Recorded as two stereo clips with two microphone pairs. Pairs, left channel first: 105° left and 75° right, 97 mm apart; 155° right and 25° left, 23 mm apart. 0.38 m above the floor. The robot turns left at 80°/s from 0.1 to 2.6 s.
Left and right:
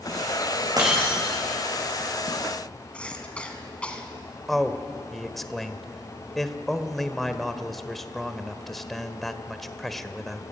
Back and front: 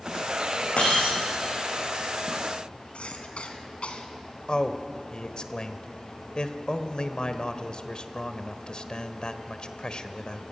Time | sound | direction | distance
0.8 | breaking glass | 120° right | 8 m
2.9 | a cough | straight behind | 3.5 m
4.5 | a man speaking | 170° right | 1.3 m